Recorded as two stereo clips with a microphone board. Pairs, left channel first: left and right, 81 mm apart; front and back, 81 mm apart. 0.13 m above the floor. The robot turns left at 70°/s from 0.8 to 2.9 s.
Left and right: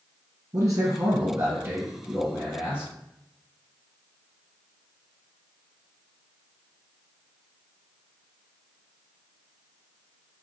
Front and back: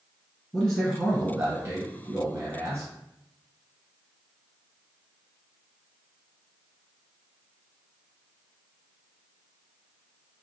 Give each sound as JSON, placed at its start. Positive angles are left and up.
{"t": 0.5, "sound": "a man speaking", "azimuth_deg": -80, "distance_m": 1.8}